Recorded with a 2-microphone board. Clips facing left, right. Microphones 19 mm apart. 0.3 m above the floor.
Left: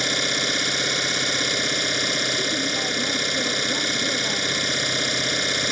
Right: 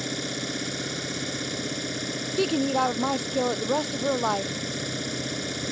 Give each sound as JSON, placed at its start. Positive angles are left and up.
{"t": 0.0, "sound": "an engine running", "side_deg": 45}
{"t": 2.4, "sound": "a woman speaking", "side_deg": -85}